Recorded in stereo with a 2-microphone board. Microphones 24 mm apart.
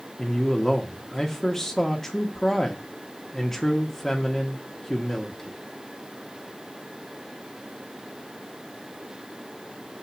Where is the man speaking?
20° left (ahead or behind), 1.2 m.